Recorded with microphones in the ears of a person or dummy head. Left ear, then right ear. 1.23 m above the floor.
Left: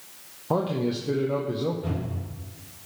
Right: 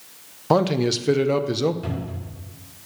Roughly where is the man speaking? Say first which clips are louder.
Right 7 dB; right.